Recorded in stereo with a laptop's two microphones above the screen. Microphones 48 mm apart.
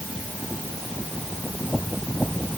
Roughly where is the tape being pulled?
No tape being pulled in this recording.